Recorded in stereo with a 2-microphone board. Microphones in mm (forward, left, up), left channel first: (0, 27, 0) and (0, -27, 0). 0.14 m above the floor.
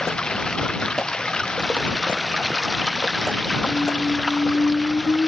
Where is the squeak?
55° left (ahead or behind).